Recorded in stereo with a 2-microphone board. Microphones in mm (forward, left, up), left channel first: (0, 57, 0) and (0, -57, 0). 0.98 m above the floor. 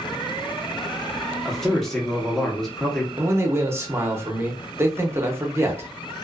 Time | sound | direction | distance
1.4 | a man speaking | 5° left (ahead or behind) | 0.9 m
3.2 | a man speaking | 20° right (ahead or behind) | 0.7 m